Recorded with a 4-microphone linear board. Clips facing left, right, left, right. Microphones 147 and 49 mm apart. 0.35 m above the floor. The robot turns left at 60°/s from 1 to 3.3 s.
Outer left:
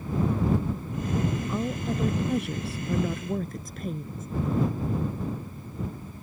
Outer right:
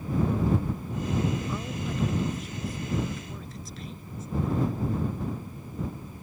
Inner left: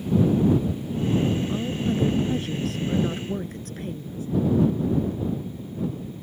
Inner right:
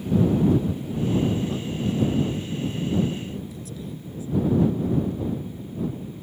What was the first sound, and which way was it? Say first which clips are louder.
A woman speaking: outer left 4 dB, inner left 1 dB; 160° left.